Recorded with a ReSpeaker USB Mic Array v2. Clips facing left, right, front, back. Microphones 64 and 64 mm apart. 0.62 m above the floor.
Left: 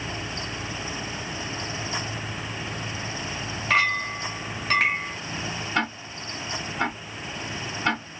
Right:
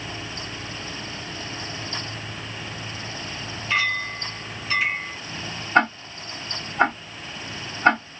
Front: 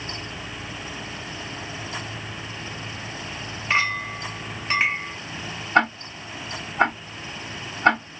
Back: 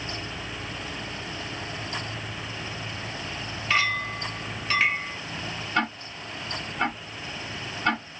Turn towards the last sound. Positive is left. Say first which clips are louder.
# right 9 dB, front 8 dB
turn(degrees=-40)